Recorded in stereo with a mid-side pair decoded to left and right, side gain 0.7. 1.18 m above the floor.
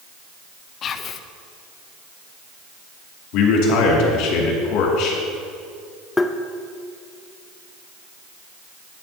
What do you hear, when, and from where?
0.8 s whispering: 40° left, 0.7 m
3.3 s a man speaking: 65° left, 2.5 m
6.2 s tapping: 10° left, 0.6 m